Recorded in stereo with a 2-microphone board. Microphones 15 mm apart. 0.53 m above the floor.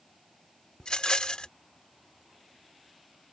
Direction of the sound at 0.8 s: 60° left (ahead or behind).